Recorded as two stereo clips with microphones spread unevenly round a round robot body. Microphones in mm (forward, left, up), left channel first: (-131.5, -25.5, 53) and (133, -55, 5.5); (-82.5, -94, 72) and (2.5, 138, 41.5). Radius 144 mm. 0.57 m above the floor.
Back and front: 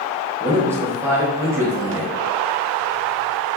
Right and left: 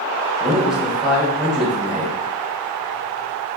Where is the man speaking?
10° left, 1.0 m.